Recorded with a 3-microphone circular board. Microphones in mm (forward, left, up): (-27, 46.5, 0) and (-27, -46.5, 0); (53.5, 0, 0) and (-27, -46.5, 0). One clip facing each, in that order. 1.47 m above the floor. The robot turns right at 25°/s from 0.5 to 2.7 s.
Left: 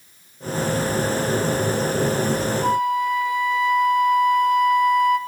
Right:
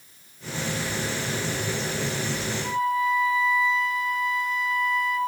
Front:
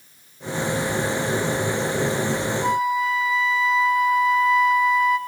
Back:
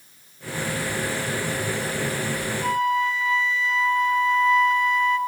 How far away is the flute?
About 1.2 m.